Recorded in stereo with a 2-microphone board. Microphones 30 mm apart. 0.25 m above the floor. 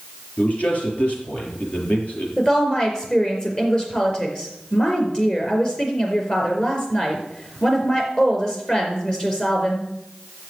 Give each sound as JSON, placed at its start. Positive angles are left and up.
{"t": 0.4, "sound": "a man speaking", "side_deg": 55, "distance_m": 6.5}
{"t": 2.4, "sound": "a woman speaking", "side_deg": 30, "distance_m": 5.0}